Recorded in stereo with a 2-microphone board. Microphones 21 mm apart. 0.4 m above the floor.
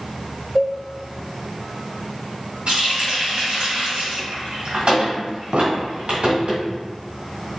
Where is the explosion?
65° right (ahead or behind), 0.6 m.